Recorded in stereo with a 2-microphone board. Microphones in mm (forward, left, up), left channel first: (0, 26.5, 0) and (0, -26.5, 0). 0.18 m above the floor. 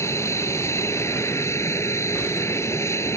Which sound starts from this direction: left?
An aircraft, at 0.0 s.